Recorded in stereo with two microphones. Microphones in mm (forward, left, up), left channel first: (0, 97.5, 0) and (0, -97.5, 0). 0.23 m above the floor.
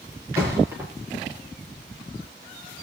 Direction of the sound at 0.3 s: 15° right (ahead or behind).